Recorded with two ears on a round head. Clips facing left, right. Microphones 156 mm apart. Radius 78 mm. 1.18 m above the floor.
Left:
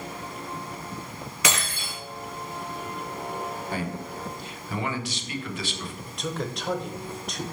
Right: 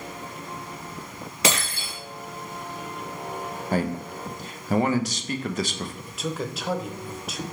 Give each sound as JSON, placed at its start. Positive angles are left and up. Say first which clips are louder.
{"t": 1.4, "sound": "breaking glass", "louder": "right 3 dB", "side_deg": -30, "distance_m": 2.5}
{"t": 3.7, "sound": "a man speaking", "louder": "right 5 dB", "side_deg": -40, "distance_m": 0.6}
{"t": 6.1, "sound": "a man speaking", "louder": "even", "side_deg": -5, "distance_m": 0.7}